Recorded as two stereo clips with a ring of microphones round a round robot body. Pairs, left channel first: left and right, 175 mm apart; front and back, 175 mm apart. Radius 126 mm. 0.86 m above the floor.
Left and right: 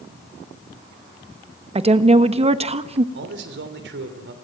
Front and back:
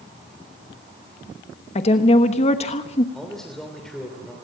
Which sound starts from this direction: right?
A man speaking, at 3.1 s.